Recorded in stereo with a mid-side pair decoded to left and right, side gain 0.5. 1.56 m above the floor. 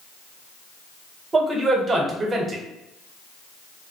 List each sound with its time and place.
1.3 s a man speaking: 40° right, 0.9 m